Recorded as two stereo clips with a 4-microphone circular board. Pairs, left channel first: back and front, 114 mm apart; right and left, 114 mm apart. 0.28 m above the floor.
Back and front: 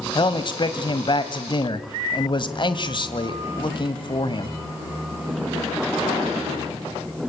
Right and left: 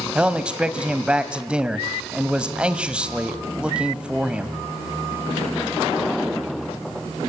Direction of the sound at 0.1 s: 165° left.